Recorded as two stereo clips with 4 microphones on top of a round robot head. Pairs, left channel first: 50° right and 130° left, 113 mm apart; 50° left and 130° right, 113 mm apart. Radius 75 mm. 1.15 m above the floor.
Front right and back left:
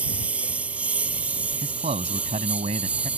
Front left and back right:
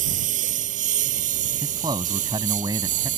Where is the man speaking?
170° left.